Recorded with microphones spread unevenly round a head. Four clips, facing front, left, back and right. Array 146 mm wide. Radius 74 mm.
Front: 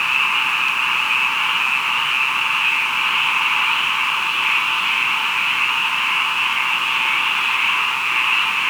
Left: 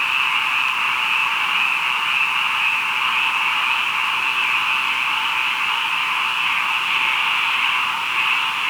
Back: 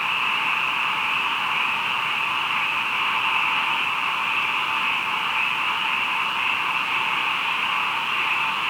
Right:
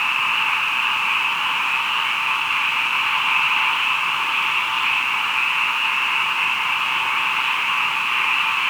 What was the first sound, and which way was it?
Only background noise.